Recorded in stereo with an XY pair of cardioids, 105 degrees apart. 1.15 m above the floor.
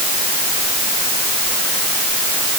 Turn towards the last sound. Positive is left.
No sound to turn to.